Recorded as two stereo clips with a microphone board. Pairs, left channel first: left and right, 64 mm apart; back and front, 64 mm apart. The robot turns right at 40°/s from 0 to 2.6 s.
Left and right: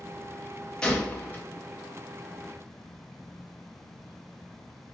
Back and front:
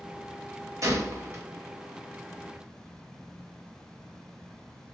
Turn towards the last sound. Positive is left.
turn(degrees=85)